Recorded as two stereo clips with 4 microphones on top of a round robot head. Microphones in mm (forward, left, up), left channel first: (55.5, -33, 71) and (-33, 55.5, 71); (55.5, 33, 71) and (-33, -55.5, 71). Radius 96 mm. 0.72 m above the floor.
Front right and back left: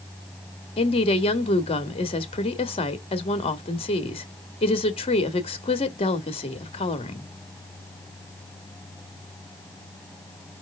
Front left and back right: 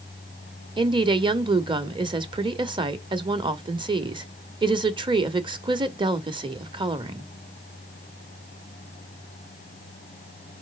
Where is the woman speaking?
85° right, 1.2 m.